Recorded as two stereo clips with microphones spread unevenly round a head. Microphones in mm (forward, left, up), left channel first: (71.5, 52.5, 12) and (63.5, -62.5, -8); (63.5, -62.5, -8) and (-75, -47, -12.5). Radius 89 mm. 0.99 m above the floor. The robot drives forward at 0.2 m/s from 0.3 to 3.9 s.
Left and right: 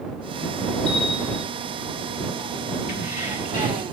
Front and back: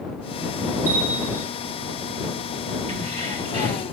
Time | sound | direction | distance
0.9 | a bell | 130° left | 3 m
2.9 | keys jangling | 115° left | 3.5 m